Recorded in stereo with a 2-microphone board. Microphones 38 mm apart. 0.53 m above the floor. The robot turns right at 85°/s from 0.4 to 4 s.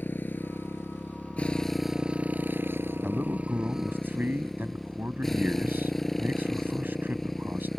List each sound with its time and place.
0.0 s a motorcycle: 60° left; by 7.8 s 5° left
3.0 s a man speaking: 150° right; by 7.7 s 65° right